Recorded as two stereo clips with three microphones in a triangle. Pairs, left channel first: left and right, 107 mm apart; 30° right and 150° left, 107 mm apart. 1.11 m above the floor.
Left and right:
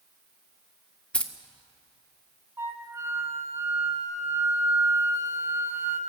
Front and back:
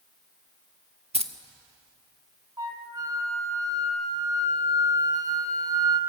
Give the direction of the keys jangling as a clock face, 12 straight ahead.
6 o'clock.